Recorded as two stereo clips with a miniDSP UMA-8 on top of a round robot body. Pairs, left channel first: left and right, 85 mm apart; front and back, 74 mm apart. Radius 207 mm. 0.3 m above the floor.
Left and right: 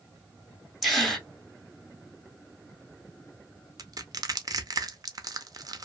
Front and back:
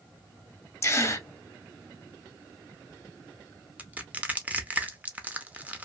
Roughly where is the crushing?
Behind right.